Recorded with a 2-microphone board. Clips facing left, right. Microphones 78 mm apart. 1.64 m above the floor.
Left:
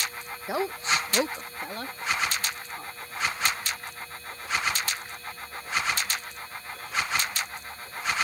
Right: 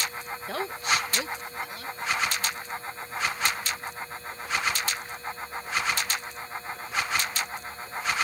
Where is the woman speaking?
15° left (ahead or behind); by 2.9 s 55° left (ahead or behind).